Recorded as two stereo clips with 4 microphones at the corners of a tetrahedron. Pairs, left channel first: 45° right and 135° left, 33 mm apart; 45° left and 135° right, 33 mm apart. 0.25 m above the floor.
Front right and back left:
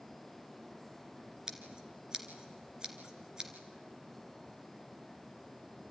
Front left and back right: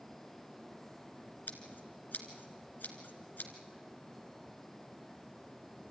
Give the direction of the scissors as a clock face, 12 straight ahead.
10 o'clock.